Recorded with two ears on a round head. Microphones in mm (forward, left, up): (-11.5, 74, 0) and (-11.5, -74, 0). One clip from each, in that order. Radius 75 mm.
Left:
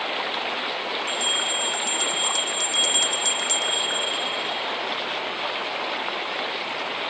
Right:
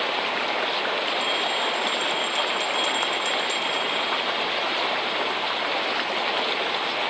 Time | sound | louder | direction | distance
1.1 | a bell | even | 50° left (ahead or behind) | ?